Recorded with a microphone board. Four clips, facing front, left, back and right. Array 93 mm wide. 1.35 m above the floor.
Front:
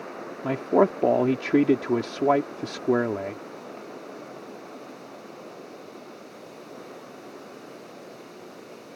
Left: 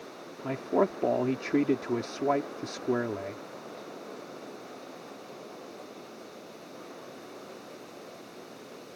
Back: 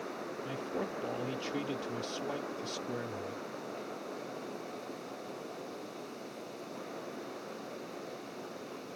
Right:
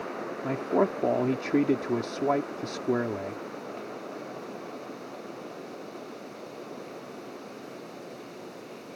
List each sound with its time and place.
0.4 s a man speaking: straight ahead